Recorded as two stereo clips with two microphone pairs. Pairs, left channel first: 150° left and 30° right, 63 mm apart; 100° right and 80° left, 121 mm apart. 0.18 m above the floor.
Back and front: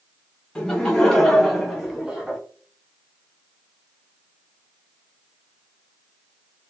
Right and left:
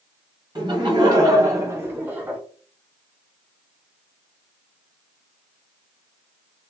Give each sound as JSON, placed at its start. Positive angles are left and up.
{"t": 0.6, "sound": "laughter", "azimuth_deg": 80, "distance_m": 1.8}